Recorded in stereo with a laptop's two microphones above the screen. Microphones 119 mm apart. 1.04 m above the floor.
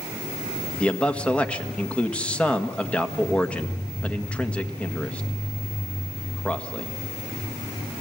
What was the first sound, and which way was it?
A man speaking, 10° left (ahead or behind).